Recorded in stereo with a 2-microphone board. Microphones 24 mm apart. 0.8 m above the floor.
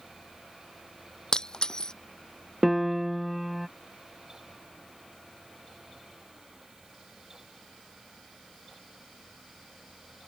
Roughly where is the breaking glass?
Left.